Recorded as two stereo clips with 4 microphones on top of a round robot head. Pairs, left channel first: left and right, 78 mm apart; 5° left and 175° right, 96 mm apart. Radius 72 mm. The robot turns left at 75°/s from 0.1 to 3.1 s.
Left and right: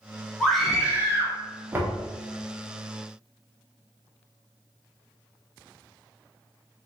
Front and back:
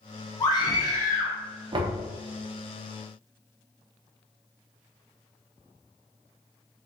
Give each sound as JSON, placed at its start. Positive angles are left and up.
{"t": 0.4, "sound": "a scream", "azimuth_deg": 15, "distance_m": 1.3}
{"t": 1.7, "sound": "knocking", "azimuth_deg": -150, "distance_m": 0.5}